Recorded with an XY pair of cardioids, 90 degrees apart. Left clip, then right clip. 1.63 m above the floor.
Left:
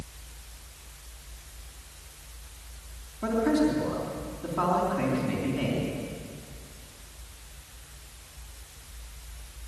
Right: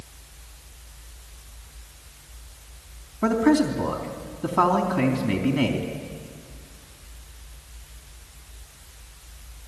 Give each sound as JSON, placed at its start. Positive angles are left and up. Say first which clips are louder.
{"t": 3.2, "sound": "a man speaking", "louder": "right 4 dB", "azimuth_deg": -65, "distance_m": 3.5}